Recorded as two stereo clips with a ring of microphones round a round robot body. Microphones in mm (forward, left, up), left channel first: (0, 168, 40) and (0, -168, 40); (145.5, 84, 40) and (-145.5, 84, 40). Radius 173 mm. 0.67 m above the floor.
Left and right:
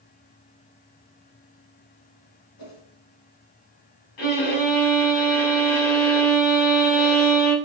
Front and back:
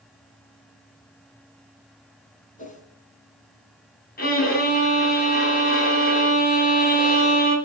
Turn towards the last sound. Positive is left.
turn(degrees=60)